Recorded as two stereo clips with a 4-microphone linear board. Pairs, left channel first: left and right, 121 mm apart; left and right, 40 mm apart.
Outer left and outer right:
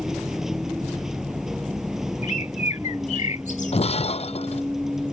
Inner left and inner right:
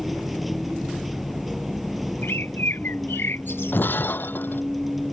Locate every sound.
0.0 s a vehicle: 5° right (ahead or behind)
2.2 s a bird: 80° left
3.7 s breaking glass: 60° left (ahead or behind)